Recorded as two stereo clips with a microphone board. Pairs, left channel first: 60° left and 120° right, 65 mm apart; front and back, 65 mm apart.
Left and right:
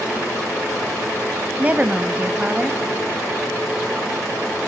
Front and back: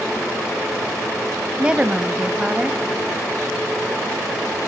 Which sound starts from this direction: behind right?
A woman speaking, at 1.6 s.